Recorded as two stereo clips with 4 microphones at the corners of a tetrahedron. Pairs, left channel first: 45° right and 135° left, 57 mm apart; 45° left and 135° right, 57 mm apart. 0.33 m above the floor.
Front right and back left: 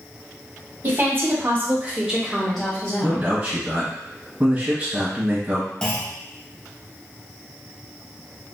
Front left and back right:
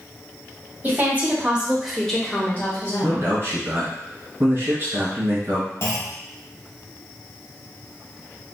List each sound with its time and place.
0.8 s a woman speaking: 175° left, 1.5 m; by 3.3 s 15° left, 1.4 m
3.0 s a man speaking: 160° right, 1.6 m
5.8 s a clunk: 35° left, 0.9 m